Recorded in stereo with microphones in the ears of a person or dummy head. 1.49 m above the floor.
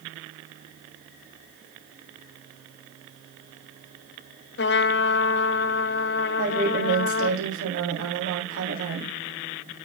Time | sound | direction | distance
4.6 | a trumpet | 50° left (ahead or behind) | 0.6 m
6.4 | a woman speaking | 75° right (ahead or behind) | 3.5 m